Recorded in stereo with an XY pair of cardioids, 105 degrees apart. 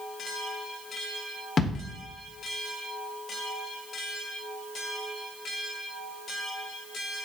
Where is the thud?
40° left, 2.0 m.